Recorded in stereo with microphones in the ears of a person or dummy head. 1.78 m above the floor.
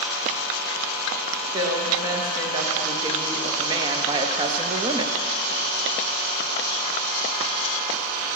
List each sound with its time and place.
1.5 s a woman speaking: 20° right (ahead or behind), 2.5 m; by 5.2 s 30° right (ahead or behind), 0.8 m